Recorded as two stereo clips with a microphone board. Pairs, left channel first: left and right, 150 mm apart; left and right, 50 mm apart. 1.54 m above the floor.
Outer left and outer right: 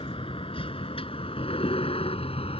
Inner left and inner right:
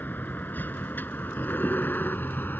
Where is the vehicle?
40° left (ahead or behind); by 2.6 s 45° left (ahead or behind).